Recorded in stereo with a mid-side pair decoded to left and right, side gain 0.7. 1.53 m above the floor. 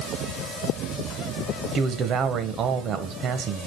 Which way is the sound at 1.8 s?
40° right.